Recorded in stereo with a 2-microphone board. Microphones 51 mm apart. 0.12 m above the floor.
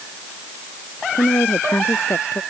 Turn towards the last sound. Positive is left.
turn(degrees=65)  # may be behind; listen again after turning